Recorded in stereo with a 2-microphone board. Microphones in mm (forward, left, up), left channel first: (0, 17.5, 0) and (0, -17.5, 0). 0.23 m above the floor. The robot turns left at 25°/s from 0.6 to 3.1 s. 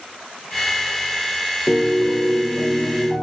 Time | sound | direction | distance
1.7 | a piano | 30° left | 1.7 m